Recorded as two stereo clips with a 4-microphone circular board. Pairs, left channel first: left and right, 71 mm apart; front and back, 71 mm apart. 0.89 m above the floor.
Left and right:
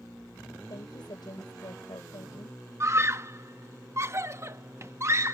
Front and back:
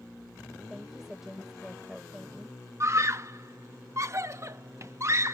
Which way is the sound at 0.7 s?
95° left.